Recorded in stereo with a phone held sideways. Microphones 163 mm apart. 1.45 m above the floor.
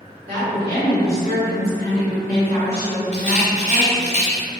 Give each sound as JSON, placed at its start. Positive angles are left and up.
{"t": 0.3, "sound": "a woman speaking", "side_deg": -70, "distance_m": 1.9}
{"t": 3.1, "sound": "a rattle", "side_deg": 45, "distance_m": 0.8}